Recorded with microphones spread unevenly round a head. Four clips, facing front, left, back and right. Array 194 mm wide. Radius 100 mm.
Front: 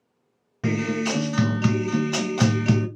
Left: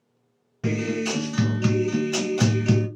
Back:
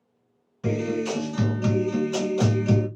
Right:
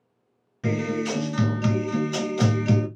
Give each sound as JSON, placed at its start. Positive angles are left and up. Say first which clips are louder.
{"t": 0.6, "sound": "a guitar", "louder": "even, front 1 dB", "azimuth_deg": 10, "distance_m": 1.6}